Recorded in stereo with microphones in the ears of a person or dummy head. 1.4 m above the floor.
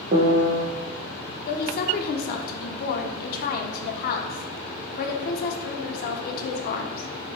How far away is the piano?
About 0.5 m.